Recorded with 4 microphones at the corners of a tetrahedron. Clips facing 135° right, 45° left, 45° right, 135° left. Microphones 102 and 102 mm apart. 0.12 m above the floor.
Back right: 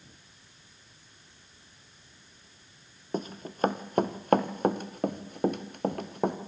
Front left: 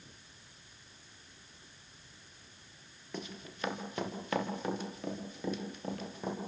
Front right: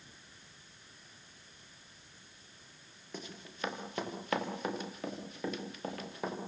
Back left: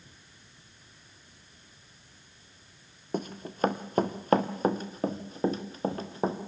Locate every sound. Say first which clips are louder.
3.1 s running footsteps: back right 9 dB, back left 12 dB; 175° left, 2.5 m; by 6.4 s 165° right, 4 m